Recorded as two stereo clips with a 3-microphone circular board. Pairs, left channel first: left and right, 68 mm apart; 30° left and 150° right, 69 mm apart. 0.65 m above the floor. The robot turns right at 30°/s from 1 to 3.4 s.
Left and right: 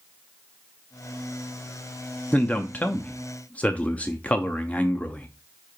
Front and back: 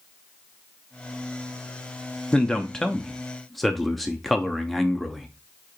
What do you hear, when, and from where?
2.3 s a man speaking: 85° left, 0.5 m; by 5.3 s 115° left, 0.5 m